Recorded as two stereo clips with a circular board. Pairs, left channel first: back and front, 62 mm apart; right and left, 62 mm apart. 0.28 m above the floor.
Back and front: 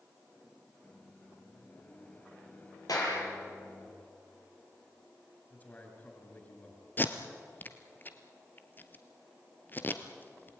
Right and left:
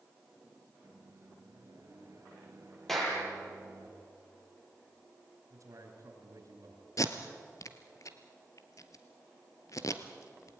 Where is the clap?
175° right, 7.5 m.